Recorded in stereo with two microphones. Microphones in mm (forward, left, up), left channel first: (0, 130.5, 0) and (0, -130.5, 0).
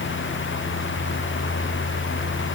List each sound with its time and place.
Only background noise.